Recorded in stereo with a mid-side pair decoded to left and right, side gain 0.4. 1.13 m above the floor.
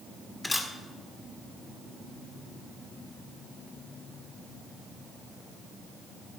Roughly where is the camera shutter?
Ahead left.